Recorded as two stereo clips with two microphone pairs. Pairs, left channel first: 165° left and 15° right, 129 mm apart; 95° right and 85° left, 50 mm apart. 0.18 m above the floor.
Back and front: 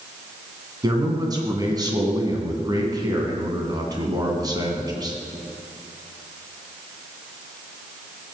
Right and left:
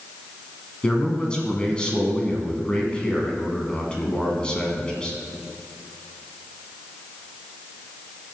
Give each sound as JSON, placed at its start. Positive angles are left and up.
{"t": 0.8, "sound": "a man speaking", "azimuth_deg": -35, "distance_m": 1.8}